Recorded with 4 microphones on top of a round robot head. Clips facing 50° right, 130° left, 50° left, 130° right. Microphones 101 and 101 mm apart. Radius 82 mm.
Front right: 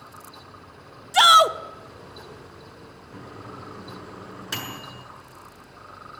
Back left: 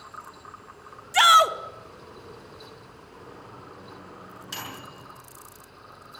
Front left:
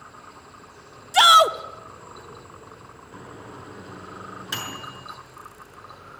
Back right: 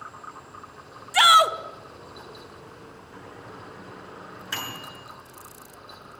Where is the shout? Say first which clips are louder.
Front right 2 dB, front left 2 dB; 5° left, 1.3 m.